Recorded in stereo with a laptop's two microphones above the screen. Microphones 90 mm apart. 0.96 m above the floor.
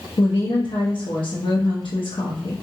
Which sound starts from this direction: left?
A woman speaking, at 0.2 s.